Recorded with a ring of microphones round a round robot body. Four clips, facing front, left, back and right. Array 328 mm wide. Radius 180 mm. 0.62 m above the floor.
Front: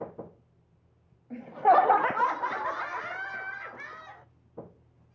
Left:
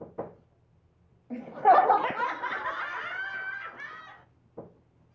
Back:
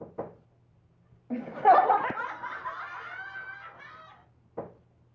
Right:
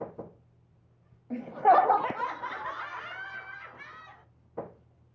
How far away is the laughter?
About 0.6 m.